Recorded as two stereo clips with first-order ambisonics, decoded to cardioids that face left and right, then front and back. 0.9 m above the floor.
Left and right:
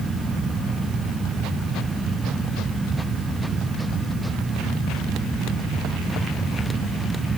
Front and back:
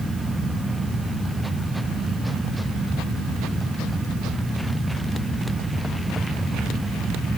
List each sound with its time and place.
Only background noise.